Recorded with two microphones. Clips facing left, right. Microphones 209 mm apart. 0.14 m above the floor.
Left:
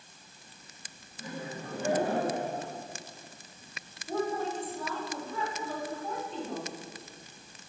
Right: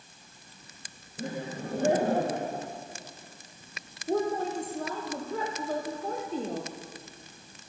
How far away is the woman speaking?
About 5 m.